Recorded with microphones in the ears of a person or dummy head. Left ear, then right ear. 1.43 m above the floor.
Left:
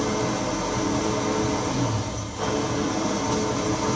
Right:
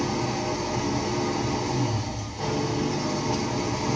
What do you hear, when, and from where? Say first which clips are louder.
0.0 s an engine running: left 2 dB; 55° left (ahead or behind), 5 m